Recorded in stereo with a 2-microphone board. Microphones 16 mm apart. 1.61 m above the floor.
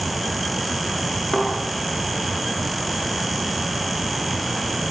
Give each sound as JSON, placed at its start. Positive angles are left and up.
{"t": 1.3, "sound": "a thud", "side_deg": 10, "distance_m": 9.5}